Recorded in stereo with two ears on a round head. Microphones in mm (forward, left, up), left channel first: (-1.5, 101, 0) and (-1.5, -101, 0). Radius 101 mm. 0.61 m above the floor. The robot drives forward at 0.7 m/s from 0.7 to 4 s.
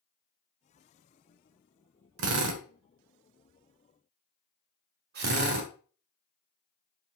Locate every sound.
2.2 s a drill: 75° right (ahead or behind), 1.2 m; by 5.7 s 50° right (ahead or behind), 1.6 m